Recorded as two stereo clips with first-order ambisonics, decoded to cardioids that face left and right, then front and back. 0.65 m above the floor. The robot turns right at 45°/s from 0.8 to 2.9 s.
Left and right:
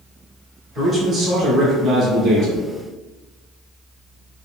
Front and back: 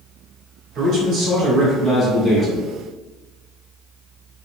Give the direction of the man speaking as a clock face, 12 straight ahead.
5 o'clock.